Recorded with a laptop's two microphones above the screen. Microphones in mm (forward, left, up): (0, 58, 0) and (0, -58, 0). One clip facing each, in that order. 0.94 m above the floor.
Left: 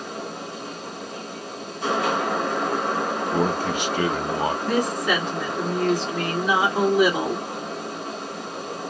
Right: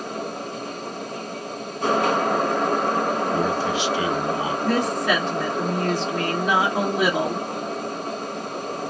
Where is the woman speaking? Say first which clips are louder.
Right 4 dB; 60° right (ahead or behind), 1.6 m.